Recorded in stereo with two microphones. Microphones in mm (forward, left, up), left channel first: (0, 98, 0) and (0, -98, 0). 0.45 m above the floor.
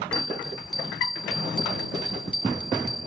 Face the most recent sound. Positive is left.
turn(degrees=5)  # may be behind; listen again after turning